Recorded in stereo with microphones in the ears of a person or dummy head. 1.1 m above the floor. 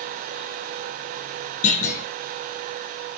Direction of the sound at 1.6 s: 45° left (ahead or behind).